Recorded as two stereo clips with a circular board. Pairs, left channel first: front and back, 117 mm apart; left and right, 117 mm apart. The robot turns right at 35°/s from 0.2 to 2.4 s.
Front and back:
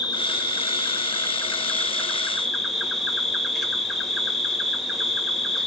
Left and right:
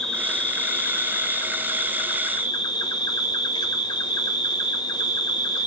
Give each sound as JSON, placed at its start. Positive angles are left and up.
{"t": 0.0, "sound": "an insect", "azimuth_deg": 10, "distance_m": 1.0}